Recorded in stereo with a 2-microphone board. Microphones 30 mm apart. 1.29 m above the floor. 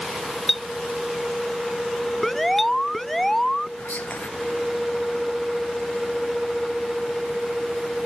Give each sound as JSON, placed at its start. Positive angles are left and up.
{"t": 0.5, "sound": "a clink", "side_deg": 0}
{"t": 2.2, "sound": "an alarm", "side_deg": 10}
{"t": 3.8, "sound": "whispering", "side_deg": 75}